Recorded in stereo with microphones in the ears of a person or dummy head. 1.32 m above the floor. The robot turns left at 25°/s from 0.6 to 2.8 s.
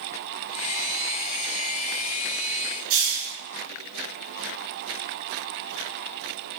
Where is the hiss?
60° right (ahead or behind), 1.5 m.